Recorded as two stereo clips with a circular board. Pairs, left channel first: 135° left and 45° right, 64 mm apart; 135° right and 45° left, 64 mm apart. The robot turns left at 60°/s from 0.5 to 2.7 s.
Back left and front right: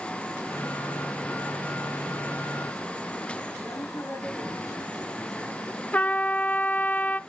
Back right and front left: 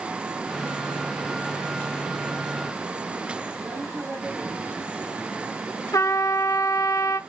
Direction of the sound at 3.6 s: 100° left.